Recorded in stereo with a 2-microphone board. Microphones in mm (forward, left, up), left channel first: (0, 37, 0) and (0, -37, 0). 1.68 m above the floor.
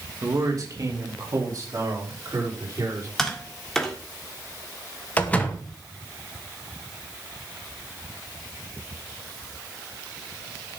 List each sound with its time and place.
0.2 s a man speaking: 50° right (ahead or behind), 2.5 m; by 3.1 s 45° right (ahead or behind), 6 m
3.2 s tapping: 5° left (ahead or behind), 1.8 m
5.2 s a door slam: 20° left (ahead or behind), 1.7 m